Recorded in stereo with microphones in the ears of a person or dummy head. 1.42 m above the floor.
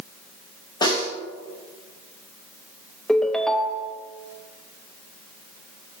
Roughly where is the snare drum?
Left.